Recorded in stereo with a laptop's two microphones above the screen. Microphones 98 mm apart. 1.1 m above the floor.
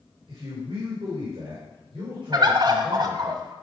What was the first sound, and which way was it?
A man speaking, 65° right (ahead or behind).